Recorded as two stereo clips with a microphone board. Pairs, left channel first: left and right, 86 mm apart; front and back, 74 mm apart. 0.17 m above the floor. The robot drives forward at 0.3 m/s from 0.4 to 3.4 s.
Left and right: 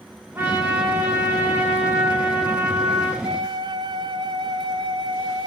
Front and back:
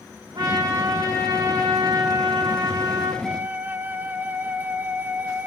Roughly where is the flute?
Right.